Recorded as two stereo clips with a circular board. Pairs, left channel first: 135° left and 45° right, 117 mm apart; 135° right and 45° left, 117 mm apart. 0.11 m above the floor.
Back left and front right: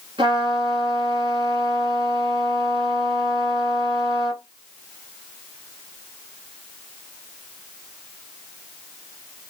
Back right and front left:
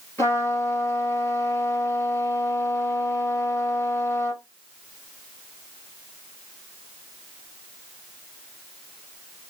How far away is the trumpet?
About 1.4 m.